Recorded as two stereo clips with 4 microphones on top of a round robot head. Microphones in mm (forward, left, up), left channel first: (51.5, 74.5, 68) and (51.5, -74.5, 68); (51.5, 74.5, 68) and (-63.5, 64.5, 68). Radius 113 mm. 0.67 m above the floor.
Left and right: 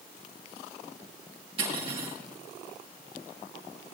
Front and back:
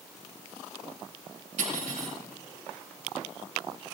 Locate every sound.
1.6 s cutlery clinking: 150° right, 4.5 m